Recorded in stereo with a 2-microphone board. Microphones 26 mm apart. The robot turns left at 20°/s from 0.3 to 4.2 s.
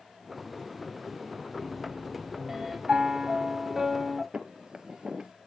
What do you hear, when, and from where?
1.6 s a piano: 25° right (ahead or behind), 1.6 m; by 2.8 s 5° right (ahead or behind), 1.6 m
2.9 s a piano: 35° right (ahead or behind), 0.6 m; by 4.2 s 10° right (ahead or behind), 0.6 m
4.3 s footsteps: 30° right (ahead or behind), 0.7 m